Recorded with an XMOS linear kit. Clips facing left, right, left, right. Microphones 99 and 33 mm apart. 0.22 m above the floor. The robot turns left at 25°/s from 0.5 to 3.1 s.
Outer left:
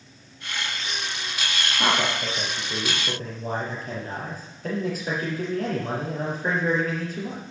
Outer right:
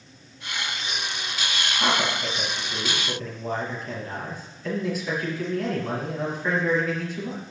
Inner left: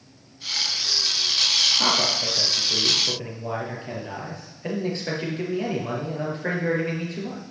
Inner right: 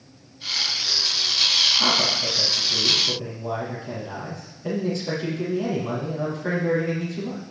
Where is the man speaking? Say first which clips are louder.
Outer left 1 dB, inner right 1 dB; 75° left, 4.5 m; by 7.4 s 45° left, 4.5 m.